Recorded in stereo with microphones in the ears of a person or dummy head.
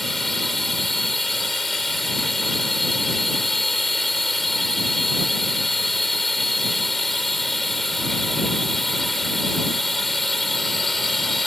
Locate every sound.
0.0 s a drone: 5° left (ahead or behind)